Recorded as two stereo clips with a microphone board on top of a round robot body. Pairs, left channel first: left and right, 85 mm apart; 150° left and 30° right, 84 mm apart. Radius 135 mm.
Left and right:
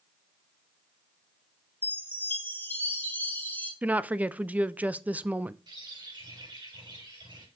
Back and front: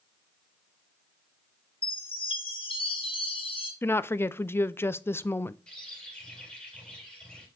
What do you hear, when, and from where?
1.8 s a chime: 160° left, 4 m
3.8 s a woman speaking: 155° right, 0.7 m
5.7 s a bird: 130° right, 5.5 m